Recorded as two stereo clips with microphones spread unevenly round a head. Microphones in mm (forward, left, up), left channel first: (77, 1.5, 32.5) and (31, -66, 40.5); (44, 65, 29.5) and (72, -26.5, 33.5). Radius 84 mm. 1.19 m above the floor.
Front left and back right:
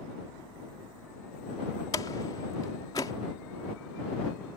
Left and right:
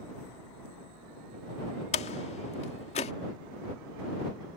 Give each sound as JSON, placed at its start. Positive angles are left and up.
{"t": 1.9, "sound": "a door slam", "azimuth_deg": 120}